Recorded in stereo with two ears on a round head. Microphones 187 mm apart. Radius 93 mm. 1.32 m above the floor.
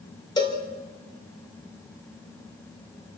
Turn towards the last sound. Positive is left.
turn(degrees=20)  # may be behind; listen again after turning